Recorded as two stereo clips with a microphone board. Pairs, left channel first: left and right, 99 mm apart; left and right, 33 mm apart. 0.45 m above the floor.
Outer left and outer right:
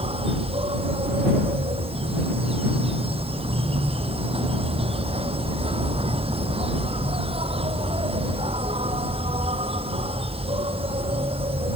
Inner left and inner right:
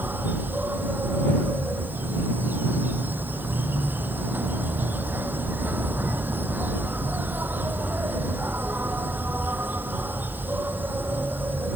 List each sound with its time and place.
0.0 s an insect: 75° right (ahead or behind)